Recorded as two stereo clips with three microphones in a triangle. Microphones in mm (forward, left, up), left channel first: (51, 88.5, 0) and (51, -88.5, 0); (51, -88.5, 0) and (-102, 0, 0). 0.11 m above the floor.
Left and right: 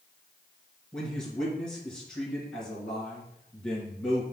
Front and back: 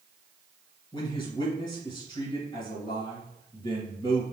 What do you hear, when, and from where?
0.9 s a man speaking: 5° left, 2.0 m